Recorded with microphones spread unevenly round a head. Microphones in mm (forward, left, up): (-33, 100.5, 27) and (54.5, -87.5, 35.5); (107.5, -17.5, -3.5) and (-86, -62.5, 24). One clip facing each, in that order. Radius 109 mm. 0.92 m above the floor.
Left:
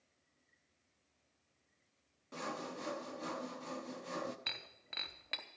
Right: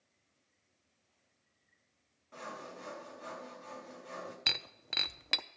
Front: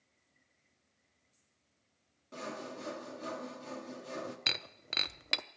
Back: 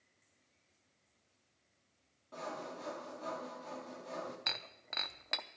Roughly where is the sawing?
Left.